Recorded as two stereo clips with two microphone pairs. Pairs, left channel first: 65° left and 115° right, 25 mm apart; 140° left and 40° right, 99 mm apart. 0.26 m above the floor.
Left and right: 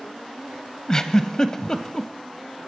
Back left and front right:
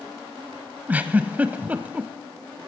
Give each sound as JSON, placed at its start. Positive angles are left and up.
{"t": 0.9, "sound": "a giggle", "azimuth_deg": 25, "distance_m": 0.7}